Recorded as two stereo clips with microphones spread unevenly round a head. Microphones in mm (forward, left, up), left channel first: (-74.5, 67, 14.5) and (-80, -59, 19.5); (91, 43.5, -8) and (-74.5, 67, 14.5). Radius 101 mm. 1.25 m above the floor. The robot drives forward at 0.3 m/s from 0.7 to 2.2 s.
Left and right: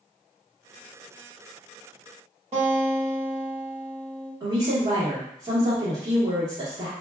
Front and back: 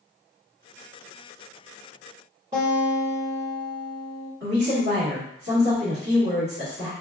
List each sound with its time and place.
2.5 s a guitar: 125° right, 1.6 m
4.4 s a woman speaking: 150° right, 1.4 m